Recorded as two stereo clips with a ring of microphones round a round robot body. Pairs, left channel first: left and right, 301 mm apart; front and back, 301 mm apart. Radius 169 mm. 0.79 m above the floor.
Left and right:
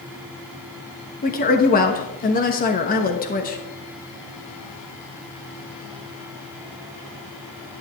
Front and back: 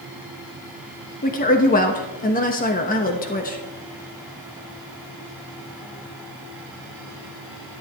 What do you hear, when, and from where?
1.2 s a woman speaking: 45° left, 1.1 m